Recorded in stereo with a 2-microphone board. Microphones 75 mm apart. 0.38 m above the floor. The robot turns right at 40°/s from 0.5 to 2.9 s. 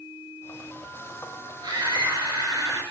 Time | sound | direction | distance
1.6 | a scream | 115° right | 6.5 m